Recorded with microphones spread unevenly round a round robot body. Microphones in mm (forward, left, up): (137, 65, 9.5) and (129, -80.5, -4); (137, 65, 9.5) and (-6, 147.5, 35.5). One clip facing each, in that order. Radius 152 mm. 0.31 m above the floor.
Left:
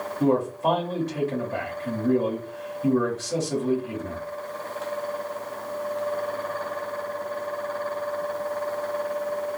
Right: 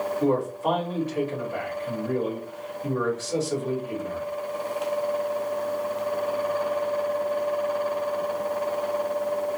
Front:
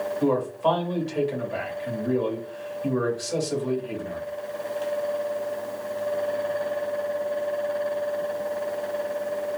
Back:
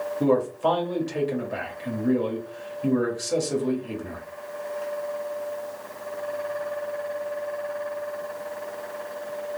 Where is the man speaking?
130° left, 1.3 m.